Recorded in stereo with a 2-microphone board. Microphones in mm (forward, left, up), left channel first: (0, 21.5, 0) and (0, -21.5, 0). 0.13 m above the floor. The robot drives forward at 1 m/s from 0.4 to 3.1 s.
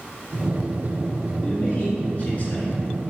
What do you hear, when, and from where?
1.4 s a man speaking: 30° left (ahead or behind), 1.8 m